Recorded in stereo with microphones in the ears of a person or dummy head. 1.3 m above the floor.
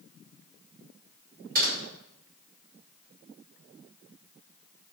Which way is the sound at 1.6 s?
50° right (ahead or behind).